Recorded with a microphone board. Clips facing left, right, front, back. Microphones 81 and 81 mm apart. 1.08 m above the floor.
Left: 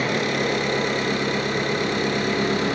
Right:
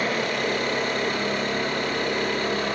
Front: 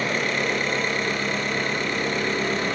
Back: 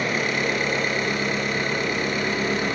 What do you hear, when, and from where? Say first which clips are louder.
0.0 s an engine running: left 2 dB, even; 95° left, 5.5 m